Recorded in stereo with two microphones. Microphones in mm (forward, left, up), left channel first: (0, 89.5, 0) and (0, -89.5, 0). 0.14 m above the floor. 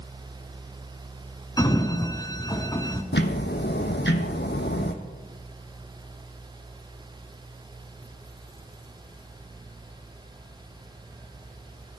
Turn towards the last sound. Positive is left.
turn(degrees=80)